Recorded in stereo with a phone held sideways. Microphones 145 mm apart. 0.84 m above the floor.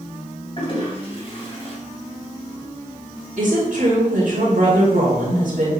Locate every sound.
0.6 s a toilet flushing: 40° left (ahead or behind), 3 m
3.4 s a woman speaking: 80° right, 4 m